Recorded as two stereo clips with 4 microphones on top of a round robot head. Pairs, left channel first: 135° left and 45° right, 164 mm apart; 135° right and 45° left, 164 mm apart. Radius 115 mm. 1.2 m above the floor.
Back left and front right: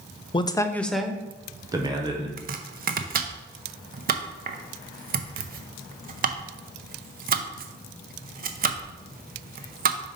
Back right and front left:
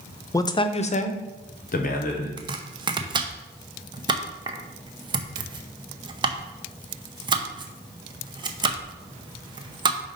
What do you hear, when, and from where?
0.3 s a man speaking: 165° left, 0.6 m; by 2.3 s 105° right, 1.3 m
2.4 s chopping: 15° right, 0.7 m